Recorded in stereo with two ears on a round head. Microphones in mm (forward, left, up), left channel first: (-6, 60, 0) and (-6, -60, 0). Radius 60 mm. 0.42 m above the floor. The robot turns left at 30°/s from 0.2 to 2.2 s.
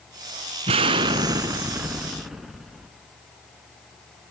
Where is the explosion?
130° right, 0.8 m; by 2.9 s 175° right, 0.8 m.